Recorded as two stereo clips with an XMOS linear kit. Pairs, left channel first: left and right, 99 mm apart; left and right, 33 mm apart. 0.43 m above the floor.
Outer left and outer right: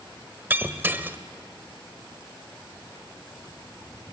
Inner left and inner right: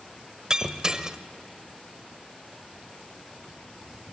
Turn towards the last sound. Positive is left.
turn(degrees=-20)  # may be behind; listen again after turning